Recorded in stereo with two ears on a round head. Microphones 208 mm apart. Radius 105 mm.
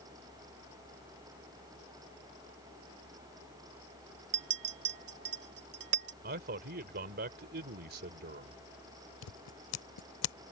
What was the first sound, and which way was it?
A clink, 50° right (ahead or behind).